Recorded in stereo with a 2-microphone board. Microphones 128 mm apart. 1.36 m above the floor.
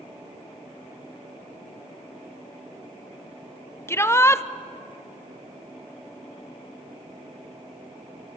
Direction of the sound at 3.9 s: 20° left (ahead or behind).